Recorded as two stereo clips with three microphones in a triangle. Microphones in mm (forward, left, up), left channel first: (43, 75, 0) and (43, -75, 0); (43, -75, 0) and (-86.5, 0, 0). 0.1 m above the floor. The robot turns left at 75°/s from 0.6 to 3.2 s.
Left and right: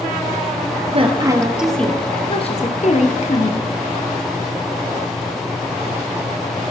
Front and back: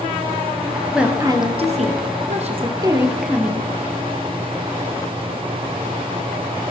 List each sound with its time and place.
0.9 s a woman speaking: 125° right, 2 m; by 3.7 s 65° left, 2 m